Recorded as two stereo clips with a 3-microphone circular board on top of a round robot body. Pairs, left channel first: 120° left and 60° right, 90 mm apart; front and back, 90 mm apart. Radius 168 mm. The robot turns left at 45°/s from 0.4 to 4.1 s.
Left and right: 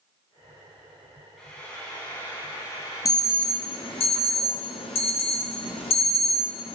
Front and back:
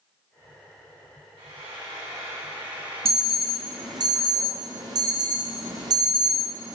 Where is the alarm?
175° left, 1.1 m; by 6.8 s 130° left, 1.1 m.